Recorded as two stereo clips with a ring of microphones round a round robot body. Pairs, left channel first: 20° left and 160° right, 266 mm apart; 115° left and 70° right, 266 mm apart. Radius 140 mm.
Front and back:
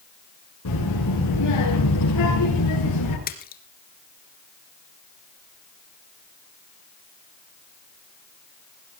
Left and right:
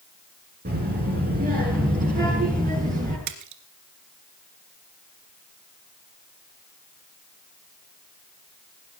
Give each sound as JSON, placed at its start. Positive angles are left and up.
{"t": 0.7, "sound": "a child speaking", "azimuth_deg": -10, "distance_m": 6.5}
{"t": 3.3, "sound": "a splash", "azimuth_deg": -40, "distance_m": 2.0}